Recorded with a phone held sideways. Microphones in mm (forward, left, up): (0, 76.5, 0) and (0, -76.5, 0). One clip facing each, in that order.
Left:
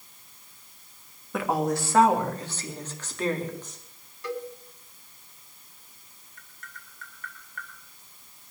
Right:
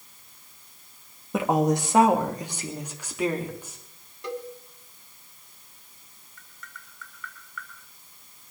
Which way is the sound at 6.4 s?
50° left (ahead or behind).